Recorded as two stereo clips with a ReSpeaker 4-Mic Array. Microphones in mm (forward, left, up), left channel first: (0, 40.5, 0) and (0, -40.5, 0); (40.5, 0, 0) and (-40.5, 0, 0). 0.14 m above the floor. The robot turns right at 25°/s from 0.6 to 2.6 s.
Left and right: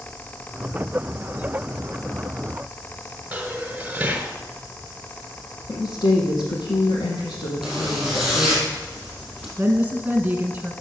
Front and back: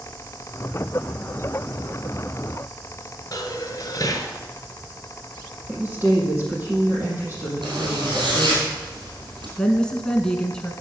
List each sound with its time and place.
3.3 s dishes clattering: 20° right, 1.4 m
5.7 s a woman speaking: 115° left, 4 m
7.6 s a zipper: straight behind, 3.5 m
9.6 s a woman speaking: 65° right, 1.1 m